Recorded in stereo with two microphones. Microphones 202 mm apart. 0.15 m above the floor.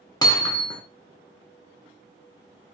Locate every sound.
0.2 s hammering: 20° left (ahead or behind), 0.7 m